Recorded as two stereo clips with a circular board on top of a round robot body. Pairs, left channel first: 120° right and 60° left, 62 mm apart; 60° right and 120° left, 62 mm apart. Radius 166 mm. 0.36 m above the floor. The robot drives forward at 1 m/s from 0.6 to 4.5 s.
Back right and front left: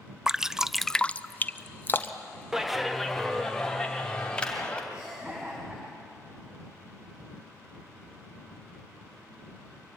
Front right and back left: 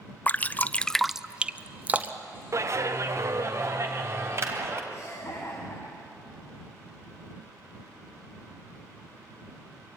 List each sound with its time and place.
0.3 s dripping: 15° right, 0.7 m; by 2.4 s 175° right, 1.6 m
2.5 s a clap: 140° left, 1.5 m; by 4.8 s 165° left, 3 m
4.9 s laughter: 15° right, 4 m